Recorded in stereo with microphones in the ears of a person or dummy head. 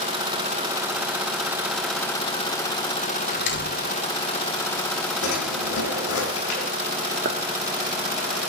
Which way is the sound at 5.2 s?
75° left (ahead or behind).